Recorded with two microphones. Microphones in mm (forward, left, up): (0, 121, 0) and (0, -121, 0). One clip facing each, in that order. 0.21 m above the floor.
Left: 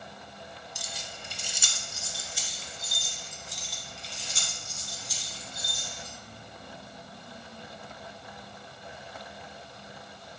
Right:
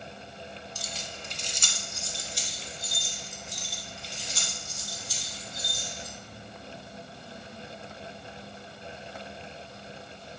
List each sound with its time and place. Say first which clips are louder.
0.8 s keys jangling: right 3 dB; 15° left (ahead or behind), 0.8 m; by 6.1 s centre (ahead or behind), 4 m